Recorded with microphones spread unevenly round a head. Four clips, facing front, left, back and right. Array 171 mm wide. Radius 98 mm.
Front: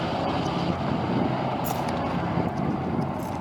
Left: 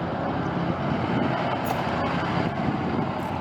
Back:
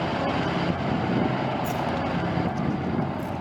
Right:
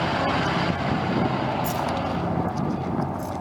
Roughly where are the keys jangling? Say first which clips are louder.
Even, even; ahead.